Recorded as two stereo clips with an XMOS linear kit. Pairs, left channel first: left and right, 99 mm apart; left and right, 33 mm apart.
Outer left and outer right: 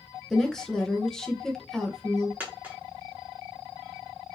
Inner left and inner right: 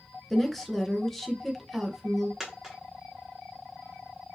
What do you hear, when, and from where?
0.3 s a woman speaking: 5° left (ahead or behind), 1.1 m
2.4 s a dropped coin: 20° right (ahead or behind), 1.3 m